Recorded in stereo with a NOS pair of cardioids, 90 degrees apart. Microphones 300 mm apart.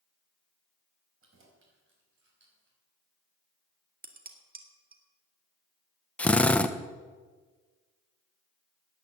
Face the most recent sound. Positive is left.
turn(degrees=5)